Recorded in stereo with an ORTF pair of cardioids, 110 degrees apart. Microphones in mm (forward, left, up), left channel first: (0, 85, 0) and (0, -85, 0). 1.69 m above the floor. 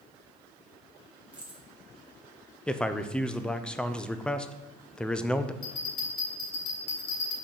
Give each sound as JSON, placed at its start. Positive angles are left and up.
{"t": 1.3, "sound": "keys jangling", "azimuth_deg": -5, "distance_m": 1.8}
{"t": 2.7, "sound": "a man speaking", "azimuth_deg": 5, "distance_m": 0.5}
{"t": 5.6, "sound": "a bell", "azimuth_deg": 60, "distance_m": 2.5}